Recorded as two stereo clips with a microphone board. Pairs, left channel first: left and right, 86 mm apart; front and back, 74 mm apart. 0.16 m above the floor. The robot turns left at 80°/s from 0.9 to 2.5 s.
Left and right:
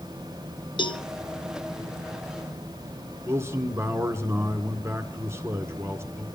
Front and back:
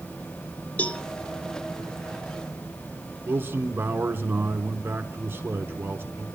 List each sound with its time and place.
0.8 s a cowbell: 70° left, 1.0 m; by 1.0 s 60° left, 1.0 m
3.3 s a man speaking: 135° right, 1.8 m